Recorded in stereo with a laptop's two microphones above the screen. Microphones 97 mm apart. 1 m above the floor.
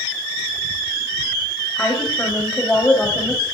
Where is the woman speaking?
10° left (ahead or behind), 6.5 m.